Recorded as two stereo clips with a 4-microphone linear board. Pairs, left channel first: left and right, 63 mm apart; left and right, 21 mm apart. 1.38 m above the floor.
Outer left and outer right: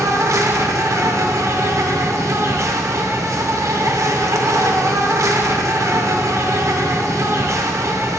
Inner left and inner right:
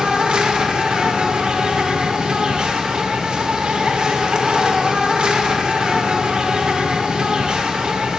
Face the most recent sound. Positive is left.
turn(degrees=-55)  # may be behind; listen again after turning